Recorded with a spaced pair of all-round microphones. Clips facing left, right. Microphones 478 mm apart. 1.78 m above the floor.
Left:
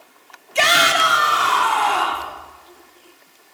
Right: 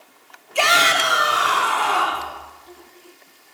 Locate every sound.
0.6 s a shout: 40° left (ahead or behind), 0.8 m; by 2.3 s 10° left (ahead or behind), 1.8 m